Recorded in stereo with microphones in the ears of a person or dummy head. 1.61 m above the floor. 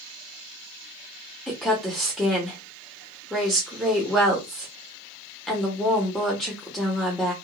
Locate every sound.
1.5 s a woman speaking: 5° left (ahead or behind), 1.0 m